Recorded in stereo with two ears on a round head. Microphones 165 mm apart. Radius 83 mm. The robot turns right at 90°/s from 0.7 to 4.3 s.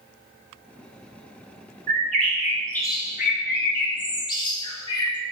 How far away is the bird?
About 0.7 m.